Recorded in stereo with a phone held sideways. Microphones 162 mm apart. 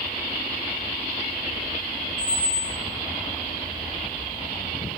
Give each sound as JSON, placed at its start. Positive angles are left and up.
{"t": 2.2, "sound": "a squeak", "side_deg": -10, "distance_m": 1.6}